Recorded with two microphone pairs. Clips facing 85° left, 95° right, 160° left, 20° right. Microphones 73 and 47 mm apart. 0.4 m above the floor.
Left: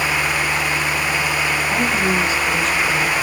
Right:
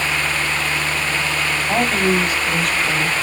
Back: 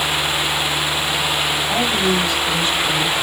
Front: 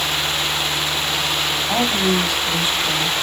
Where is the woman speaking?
105° right, 2 m.